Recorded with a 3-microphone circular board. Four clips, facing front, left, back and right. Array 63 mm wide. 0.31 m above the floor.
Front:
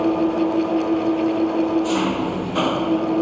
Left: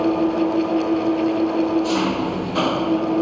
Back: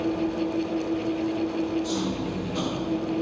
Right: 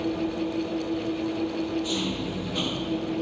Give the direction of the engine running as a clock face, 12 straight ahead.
11 o'clock.